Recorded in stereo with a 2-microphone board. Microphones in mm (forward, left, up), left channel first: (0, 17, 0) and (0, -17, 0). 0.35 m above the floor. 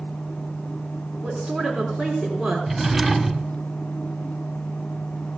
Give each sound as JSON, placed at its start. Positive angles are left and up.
{"t": 1.2, "sound": "a woman speaking", "side_deg": -20, "distance_m": 3.5}
{"t": 2.7, "sound": "a drawer", "side_deg": -5, "distance_m": 0.7}